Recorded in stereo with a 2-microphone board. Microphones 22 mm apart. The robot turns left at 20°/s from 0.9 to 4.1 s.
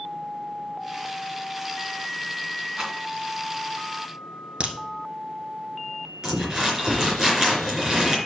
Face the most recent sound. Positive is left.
turn(degrees=-30)  # may be behind; listen again after turning